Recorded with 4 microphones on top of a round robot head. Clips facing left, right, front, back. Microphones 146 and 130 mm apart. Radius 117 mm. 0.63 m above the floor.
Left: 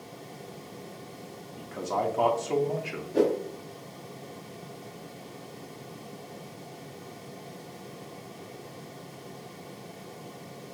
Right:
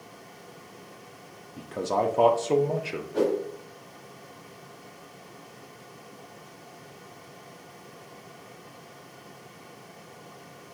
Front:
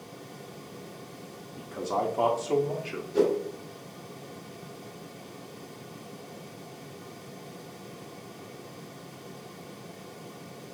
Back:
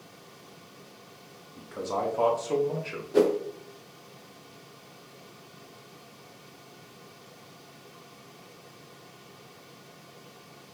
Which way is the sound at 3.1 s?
155° left.